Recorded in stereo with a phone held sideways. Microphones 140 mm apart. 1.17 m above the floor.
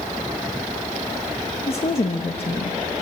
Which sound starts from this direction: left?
A woman speaking, at 1.7 s.